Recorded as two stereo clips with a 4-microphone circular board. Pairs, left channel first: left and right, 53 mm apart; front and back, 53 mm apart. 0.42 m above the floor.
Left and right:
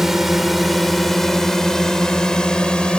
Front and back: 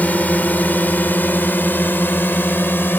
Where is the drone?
10° right; by 3.0 s 25° left.